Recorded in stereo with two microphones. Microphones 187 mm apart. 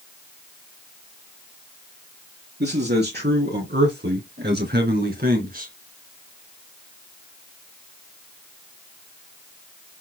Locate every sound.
2.6 s a man speaking: 60° right (ahead or behind), 3 m; by 5.7 s 50° right (ahead or behind), 2.5 m